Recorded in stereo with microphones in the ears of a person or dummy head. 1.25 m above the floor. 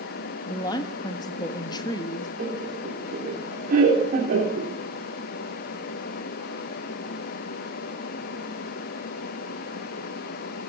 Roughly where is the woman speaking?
Left.